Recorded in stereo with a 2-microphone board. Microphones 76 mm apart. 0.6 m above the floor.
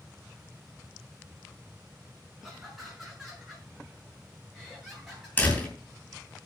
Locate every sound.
2.4 s laughter: 5° right (ahead or behind), 6 m; by 5.3 s centre (ahead or behind), 9 m
5.4 s a door slam: 20° left (ahead or behind), 5.5 m